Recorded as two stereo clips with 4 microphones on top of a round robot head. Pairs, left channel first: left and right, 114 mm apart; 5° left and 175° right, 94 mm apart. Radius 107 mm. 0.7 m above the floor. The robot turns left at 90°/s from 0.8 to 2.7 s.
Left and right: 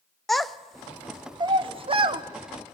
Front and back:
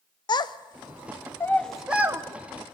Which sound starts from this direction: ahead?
A child speaking, at 0.3 s.